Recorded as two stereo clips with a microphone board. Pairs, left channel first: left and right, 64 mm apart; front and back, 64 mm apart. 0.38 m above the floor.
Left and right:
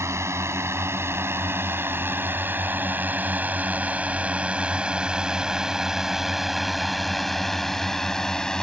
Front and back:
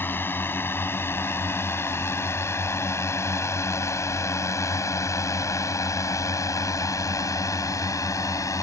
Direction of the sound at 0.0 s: 50° right.